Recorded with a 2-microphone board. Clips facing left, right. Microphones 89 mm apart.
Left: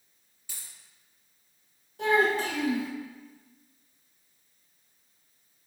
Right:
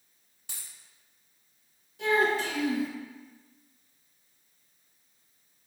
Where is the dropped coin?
85° right, 1.2 m.